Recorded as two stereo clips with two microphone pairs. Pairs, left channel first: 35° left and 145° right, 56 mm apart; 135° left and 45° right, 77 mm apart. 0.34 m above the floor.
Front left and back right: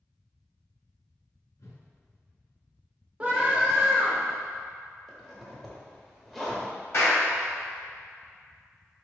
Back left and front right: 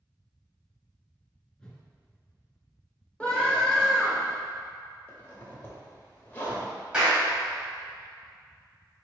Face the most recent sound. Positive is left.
turn(degrees=30)